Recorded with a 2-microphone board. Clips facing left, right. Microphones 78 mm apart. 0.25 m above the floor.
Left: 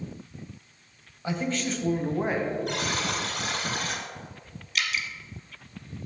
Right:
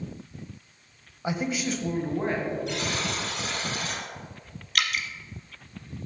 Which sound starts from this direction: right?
Dripping, at 4.8 s.